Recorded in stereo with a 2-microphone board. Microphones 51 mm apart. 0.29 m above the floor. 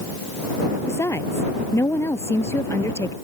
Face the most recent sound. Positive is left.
turn(degrees=75)  # may be behind; listen again after turning